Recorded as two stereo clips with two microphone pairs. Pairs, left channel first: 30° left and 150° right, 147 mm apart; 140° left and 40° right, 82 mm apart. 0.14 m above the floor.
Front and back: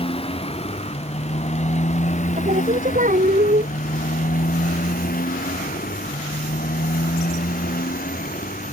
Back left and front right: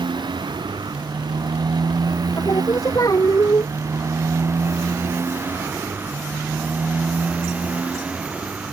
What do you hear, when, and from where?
0.0 s a motorcycle: 20° right; by 8.7 s 40° left
2.4 s singing: 175° right